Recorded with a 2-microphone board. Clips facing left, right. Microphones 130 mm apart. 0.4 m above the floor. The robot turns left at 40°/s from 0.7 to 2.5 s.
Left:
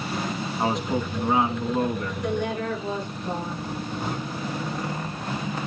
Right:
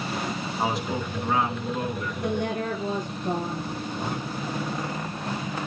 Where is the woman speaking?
55° right (ahead or behind), 8.5 m; by 3.7 s 45° right (ahead or behind), 8.5 m.